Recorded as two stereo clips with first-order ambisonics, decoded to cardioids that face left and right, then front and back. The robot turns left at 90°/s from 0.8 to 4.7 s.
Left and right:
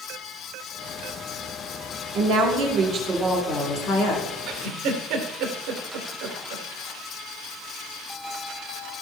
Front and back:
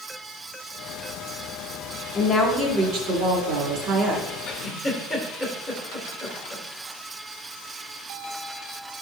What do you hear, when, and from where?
2.1 s a woman speaking: 75° right, 3 m; by 4.2 s 100° left, 3 m
4.5 s a giggle: 45° right, 1.9 m; by 6.7 s 65° right, 1.9 m